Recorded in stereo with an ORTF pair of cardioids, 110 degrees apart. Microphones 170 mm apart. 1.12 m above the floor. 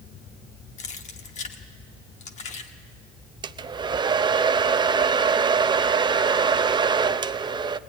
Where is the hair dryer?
25° right, 0.6 m.